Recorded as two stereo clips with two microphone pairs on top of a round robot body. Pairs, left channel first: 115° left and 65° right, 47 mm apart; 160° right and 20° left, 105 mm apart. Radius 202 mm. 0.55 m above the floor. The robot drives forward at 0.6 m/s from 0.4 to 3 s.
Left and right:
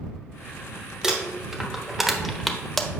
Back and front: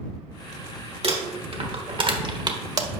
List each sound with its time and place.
1.0 s crumpling: 10° left, 1.6 m; by 2.9 s 45° left, 0.9 m